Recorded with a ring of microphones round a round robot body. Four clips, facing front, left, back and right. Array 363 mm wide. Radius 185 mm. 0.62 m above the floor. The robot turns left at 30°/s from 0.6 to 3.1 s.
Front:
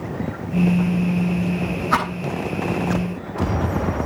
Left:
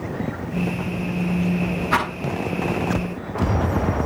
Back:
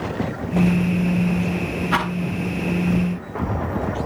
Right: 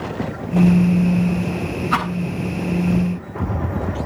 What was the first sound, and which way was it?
A rattle, 10° right.